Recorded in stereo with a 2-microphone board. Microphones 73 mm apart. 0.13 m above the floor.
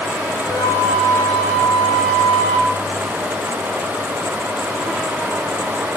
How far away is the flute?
About 5 m.